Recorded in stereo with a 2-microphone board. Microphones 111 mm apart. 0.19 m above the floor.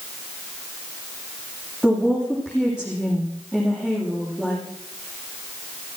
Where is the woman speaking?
5° right (ahead or behind), 7.5 m.